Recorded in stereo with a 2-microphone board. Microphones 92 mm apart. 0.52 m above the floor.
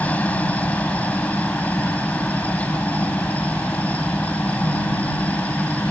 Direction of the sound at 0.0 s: 15° left (ahead or behind).